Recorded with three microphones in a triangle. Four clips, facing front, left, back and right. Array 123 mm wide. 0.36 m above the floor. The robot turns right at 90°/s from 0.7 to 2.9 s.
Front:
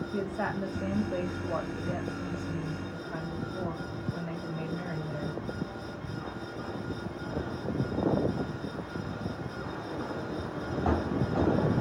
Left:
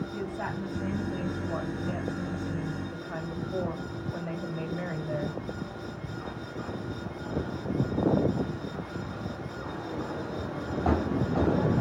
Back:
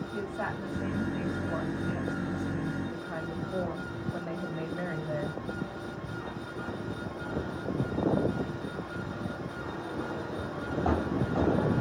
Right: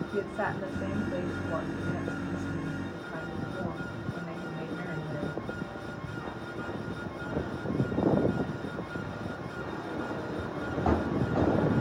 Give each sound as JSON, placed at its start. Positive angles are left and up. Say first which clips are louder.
{"t": 0.1, "sound": "a woman speaking", "louder": "right 2 dB, front 3 dB", "azimuth_deg": -65, "distance_m": 1.9}